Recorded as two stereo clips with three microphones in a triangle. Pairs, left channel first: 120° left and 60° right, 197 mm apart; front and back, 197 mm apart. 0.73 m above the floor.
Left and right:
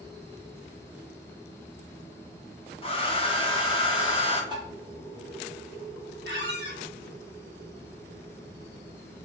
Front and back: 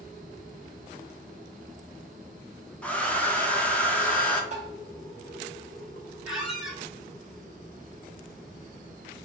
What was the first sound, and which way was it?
A hair dryer, 80° left.